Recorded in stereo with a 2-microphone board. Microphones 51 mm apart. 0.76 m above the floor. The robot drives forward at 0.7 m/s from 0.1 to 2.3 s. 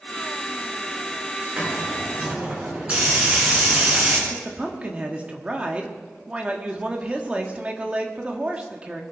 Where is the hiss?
20° right (ahead or behind), 4.5 m; by 4.2 s 25° right (ahead or behind), 4 m.